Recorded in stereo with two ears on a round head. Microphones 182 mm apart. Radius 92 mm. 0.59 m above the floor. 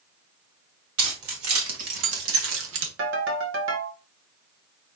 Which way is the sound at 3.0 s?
60° right (ahead or behind).